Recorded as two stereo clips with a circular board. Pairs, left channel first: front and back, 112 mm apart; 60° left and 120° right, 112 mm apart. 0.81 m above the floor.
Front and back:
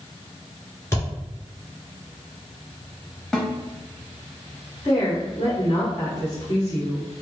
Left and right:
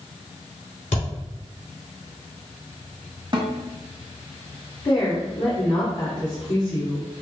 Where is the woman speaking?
45° left, 1.5 m.